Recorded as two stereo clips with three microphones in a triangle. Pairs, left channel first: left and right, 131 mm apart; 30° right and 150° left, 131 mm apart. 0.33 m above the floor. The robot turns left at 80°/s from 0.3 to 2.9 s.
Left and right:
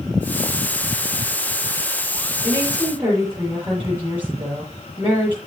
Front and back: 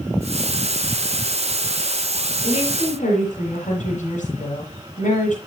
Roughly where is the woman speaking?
Ahead left.